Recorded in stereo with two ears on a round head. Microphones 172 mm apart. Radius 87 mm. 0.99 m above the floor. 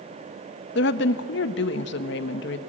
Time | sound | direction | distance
0.8 | a woman speaking | 60° left (ahead or behind) | 1.0 m